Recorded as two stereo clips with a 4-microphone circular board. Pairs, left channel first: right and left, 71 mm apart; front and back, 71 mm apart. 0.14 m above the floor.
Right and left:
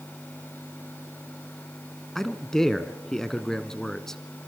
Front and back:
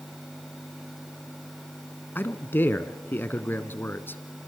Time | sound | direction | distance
2.1 | a man speaking | 15° right | 1.2 m